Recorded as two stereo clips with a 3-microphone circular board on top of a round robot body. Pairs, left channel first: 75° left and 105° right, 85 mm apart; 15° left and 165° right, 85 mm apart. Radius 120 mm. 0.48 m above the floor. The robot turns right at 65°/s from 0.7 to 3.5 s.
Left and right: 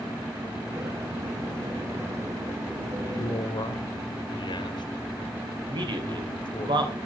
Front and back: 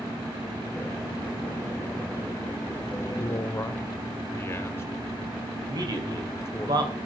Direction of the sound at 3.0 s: 35° left.